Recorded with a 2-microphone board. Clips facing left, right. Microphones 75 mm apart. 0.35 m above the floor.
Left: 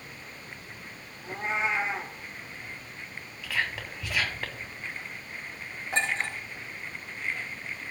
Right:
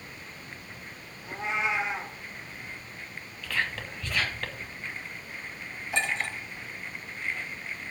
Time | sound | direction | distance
1.2 | a cat meowing | 35° left (ahead or behind) | 2 m
3.4 | whispering | 5° left (ahead or behind) | 2.5 m
5.9 | a clink | 45° left (ahead or behind) | 4.5 m